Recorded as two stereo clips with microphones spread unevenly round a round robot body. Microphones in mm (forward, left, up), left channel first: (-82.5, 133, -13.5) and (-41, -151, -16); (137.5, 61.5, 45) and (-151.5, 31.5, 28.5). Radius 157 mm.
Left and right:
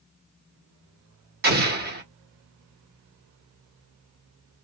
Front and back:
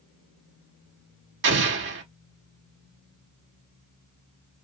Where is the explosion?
130° right, 1.2 m.